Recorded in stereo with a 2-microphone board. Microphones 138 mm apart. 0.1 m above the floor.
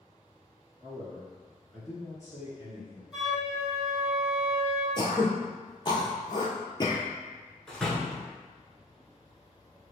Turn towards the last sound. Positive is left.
turn(degrees=5)  # may be behind; listen again after turning